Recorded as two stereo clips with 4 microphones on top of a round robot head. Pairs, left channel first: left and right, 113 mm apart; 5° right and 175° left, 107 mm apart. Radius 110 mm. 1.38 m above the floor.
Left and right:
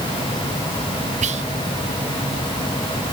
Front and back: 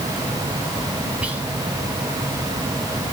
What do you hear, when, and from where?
1.2 s whispering: 105° right, 1.1 m